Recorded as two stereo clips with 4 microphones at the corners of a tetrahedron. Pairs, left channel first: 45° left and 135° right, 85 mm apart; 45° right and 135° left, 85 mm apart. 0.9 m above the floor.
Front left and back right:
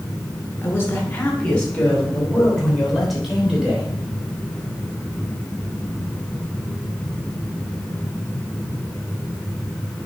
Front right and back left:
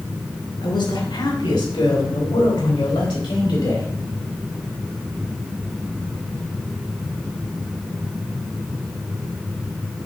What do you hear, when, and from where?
0.6 s a man speaking: 20° right, 3 m; by 3.9 s 50° right, 3.5 m